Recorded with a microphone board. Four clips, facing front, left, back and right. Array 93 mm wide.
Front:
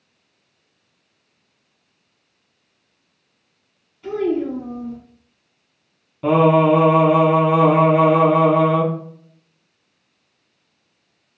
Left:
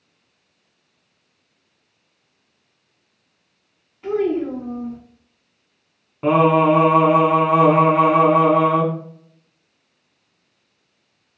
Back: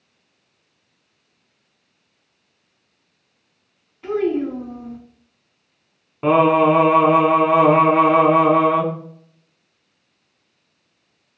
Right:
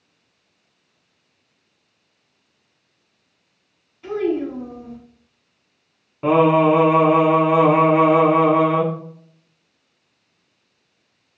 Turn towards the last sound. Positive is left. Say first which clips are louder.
# even, even
turn(degrees=170)